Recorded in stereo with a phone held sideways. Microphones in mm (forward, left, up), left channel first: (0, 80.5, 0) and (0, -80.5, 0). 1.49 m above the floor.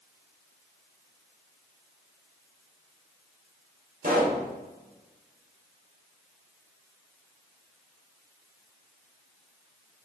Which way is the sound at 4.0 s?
60° right (ahead or behind).